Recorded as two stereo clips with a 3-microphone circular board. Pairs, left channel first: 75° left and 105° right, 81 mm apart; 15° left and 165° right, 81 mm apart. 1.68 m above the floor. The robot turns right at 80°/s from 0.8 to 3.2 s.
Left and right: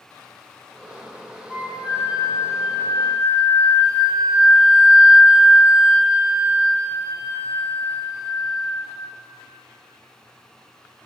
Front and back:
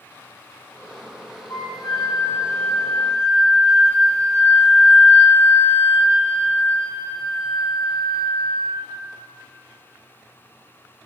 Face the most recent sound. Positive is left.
turn(degrees=120)